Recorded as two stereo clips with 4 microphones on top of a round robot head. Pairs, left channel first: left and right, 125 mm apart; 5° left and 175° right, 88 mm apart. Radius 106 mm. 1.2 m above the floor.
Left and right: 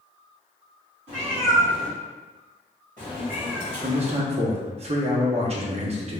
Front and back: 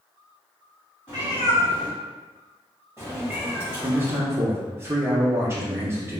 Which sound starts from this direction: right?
A cat meowing, at 1.1 s.